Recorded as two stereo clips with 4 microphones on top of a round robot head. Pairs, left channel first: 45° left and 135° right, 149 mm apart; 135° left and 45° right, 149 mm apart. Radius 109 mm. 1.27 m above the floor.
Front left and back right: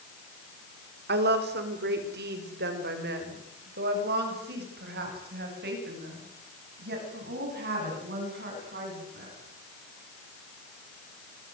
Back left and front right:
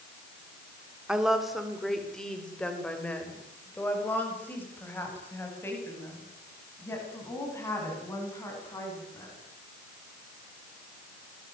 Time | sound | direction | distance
1.1 | a woman speaking | 130° right | 3.5 m